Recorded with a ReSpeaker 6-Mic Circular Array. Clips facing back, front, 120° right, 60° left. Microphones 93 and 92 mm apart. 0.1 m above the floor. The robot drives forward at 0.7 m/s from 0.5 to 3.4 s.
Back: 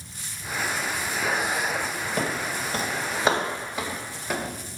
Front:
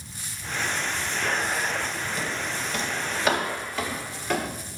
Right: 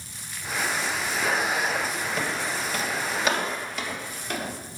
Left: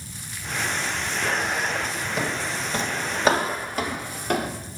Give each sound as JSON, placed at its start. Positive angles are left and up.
{"t": 2.2, "sound": "footsteps", "azimuth_deg": 140, "distance_m": 1.1}